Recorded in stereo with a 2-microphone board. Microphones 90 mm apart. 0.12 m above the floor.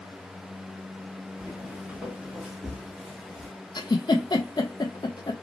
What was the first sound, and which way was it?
Footsteps, 20° right (ahead or behind).